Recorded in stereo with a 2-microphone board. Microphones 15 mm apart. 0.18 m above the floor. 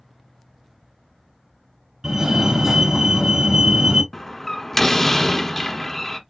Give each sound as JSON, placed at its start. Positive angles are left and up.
{"t": 2.0, "sound": "a fire alarm", "side_deg": -35, "distance_m": 3.0}
{"t": 4.1, "sound": "a door slam", "side_deg": 25, "distance_m": 1.1}